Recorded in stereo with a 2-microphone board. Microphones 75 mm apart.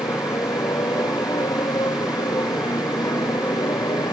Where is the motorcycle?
65° left (ahead or behind); by 4.1 s 80° left.